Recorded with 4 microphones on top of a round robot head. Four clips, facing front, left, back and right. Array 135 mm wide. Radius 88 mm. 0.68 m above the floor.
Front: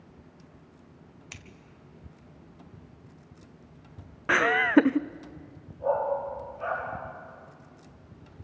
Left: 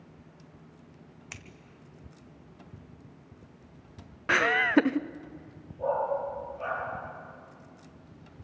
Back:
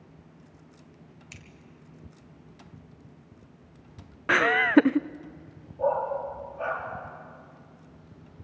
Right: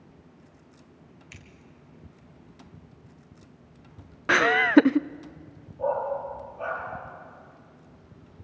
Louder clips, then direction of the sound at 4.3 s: Right 5 dB, back 1 dB; 105° right.